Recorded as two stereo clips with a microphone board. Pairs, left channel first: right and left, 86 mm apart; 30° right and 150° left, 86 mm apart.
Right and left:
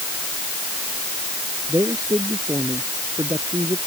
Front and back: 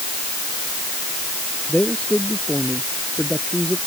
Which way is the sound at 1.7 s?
45° left.